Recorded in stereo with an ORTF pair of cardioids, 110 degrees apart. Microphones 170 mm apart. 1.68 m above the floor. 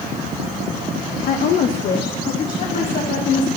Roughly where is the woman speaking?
Ahead left.